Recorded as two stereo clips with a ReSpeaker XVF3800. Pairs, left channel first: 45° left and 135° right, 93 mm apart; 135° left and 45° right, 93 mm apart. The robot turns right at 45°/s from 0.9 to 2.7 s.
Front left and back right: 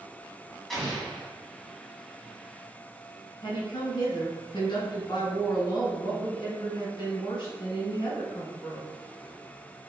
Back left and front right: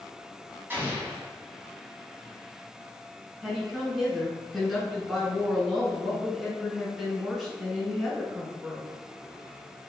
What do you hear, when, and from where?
0.7 s an explosion: 45° right, 1.6 m; by 1.3 s 25° right, 1.6 m
3.4 s a woman speaking: 45° left, 1.9 m